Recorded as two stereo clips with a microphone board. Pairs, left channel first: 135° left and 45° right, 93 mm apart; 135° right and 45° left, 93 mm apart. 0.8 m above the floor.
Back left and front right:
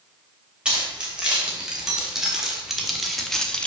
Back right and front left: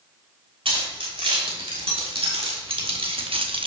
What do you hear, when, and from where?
0.7 s keys jangling: 35° left, 3 m; by 3.7 s 60° left, 0.7 m